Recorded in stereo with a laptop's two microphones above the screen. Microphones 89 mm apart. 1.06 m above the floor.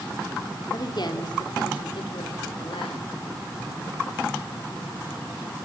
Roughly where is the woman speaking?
Left.